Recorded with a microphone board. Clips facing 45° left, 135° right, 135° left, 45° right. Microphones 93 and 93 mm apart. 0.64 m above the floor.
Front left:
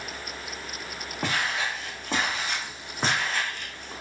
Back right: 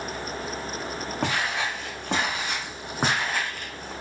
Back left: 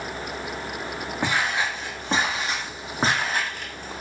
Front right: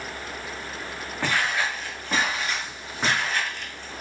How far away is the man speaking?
No man speaking in this recording.